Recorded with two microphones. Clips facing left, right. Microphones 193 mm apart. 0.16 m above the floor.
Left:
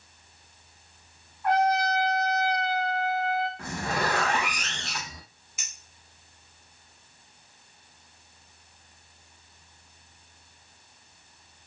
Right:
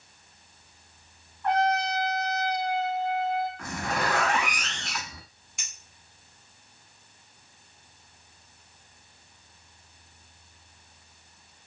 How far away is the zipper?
About 0.8 m.